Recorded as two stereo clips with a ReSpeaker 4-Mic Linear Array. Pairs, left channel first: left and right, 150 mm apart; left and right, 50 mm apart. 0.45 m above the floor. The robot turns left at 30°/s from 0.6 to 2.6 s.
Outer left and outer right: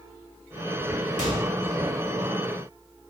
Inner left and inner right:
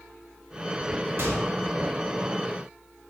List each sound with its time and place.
1.2 s a microwave: 55° right (ahead or behind), 1.5 m